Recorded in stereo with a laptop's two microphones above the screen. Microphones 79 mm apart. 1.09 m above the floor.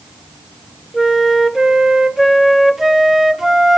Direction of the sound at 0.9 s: 5° right (ahead or behind).